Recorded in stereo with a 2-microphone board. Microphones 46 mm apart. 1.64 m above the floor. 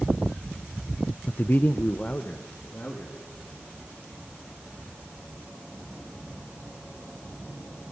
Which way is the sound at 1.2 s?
30° left (ahead or behind).